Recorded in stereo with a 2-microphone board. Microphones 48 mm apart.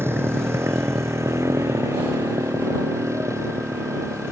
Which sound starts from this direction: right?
A motorcycle, at 0.0 s.